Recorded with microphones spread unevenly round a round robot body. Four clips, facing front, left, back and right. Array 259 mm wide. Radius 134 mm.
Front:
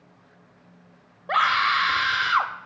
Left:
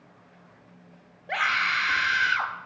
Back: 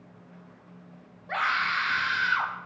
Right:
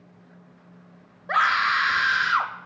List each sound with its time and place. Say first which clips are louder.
1.3 s a scream: right 5 dB, front 6 dB; 5° left, 0.8 m